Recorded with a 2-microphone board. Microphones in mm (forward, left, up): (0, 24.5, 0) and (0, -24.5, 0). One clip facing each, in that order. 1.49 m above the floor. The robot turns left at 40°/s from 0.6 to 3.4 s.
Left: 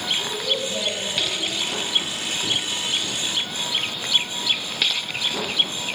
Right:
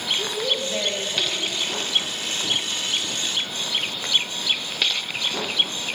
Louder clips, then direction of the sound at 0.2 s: Even; 95° right.